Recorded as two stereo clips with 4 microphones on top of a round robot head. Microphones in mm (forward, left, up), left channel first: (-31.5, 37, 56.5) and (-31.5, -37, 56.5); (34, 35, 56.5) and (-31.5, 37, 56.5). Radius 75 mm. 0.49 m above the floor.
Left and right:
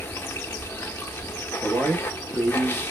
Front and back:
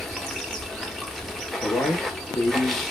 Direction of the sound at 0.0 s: 80° left.